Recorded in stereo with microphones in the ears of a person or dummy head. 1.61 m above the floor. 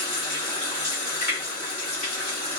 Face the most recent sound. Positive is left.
turn(degrees=35)  # may be behind; listen again after turning